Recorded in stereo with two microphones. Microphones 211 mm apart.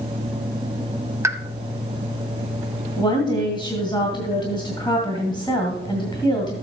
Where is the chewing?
No chewing in this recording.